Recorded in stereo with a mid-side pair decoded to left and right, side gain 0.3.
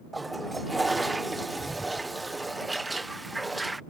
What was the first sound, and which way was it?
A toilet flushing, 30° right.